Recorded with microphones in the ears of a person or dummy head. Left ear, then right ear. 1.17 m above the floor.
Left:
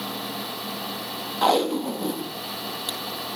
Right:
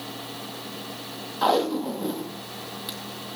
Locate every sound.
1.4 s tape being pulled: 10° left (ahead or behind), 0.7 m